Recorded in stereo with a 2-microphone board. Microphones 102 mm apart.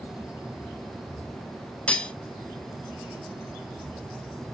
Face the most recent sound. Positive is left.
turn(degrees=10)  # may be behind; listen again after turning